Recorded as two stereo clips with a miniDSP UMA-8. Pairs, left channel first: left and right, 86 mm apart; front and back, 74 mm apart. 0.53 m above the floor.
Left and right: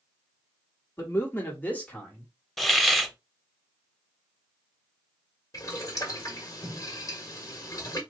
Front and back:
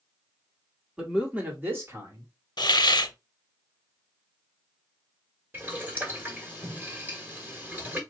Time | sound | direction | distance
1.0 | a man speaking | 105° left | 1.4 m
2.6 | a hiss | 5° left | 0.5 m
5.5 | boiling | 125° left | 1.4 m